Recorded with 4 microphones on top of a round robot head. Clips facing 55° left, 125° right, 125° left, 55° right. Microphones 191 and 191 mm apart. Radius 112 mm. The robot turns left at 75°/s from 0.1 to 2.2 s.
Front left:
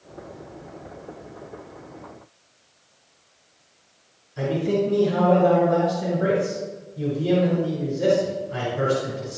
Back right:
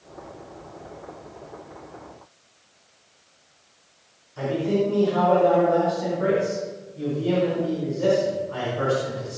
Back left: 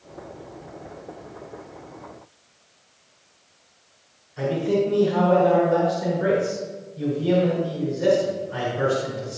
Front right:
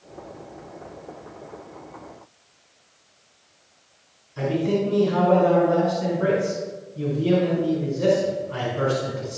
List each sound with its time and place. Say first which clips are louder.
4.4 s a man speaking: even, back left 1 dB; 15° right, 5 m